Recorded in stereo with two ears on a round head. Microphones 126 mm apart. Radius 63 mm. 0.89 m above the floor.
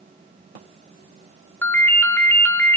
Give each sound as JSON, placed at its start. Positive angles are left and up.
{"t": 1.6, "sound": "a ringtone", "side_deg": 15, "distance_m": 0.8}